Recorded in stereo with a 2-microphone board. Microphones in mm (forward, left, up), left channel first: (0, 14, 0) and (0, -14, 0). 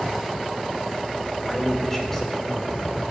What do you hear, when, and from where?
1.4 s a man speaking: 10° left (ahead or behind), 4.5 m; by 2.8 s 15° left (ahead or behind), 3 m